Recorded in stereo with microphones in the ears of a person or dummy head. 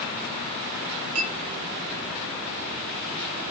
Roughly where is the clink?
Right.